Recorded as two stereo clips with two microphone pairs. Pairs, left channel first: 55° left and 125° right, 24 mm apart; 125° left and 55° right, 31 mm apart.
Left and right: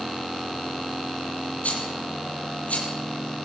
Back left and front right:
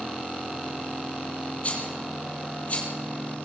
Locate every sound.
1.6 s a rattle: 80° left, 7 m